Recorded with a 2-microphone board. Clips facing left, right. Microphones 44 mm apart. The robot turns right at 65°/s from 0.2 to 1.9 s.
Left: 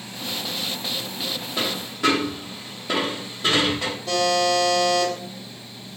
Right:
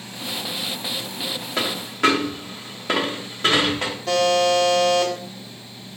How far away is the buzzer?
About 0.9 m.